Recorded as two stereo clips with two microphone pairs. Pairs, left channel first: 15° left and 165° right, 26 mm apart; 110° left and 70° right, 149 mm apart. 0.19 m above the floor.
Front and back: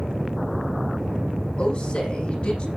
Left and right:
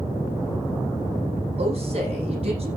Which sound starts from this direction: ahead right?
A woman speaking, at 1.6 s.